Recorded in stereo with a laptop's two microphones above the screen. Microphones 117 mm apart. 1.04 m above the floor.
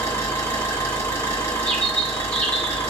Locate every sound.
0.0 s an engine running: 25° left (ahead or behind), 2 m
1.6 s a bird: 10° left (ahead or behind), 1.2 m